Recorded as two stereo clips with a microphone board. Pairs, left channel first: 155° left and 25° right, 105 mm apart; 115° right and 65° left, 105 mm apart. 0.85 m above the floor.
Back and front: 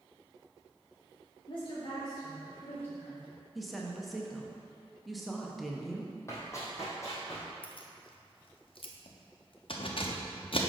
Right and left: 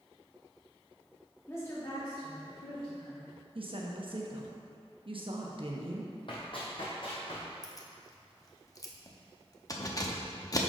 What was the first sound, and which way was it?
A woman speaking, straight behind.